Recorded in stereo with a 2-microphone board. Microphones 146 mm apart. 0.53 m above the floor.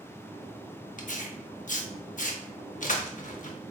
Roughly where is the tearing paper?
Left.